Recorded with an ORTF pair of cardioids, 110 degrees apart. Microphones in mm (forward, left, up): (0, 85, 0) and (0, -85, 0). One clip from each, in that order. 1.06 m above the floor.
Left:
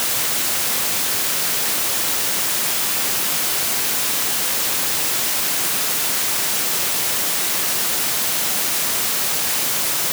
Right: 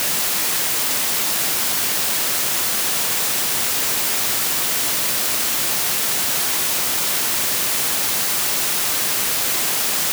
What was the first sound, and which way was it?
Only background noise.